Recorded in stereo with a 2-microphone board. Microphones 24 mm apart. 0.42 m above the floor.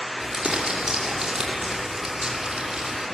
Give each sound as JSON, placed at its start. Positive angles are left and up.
{"t": 0.2, "sound": "crumpling", "side_deg": -25, "distance_m": 5.5}